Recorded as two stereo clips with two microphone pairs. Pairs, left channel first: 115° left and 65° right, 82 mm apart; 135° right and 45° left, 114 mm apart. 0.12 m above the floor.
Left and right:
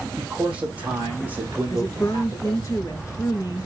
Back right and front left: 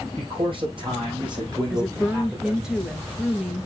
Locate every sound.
0.2 s a man speaking: 10° left, 4 m; by 2.7 s 25° right, 3.5 m
1.7 s a woman speaking: 125° left, 1.9 m